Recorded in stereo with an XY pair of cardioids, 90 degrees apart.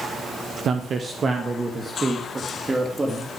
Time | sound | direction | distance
0.7 | a man speaking | 65° right | 0.9 m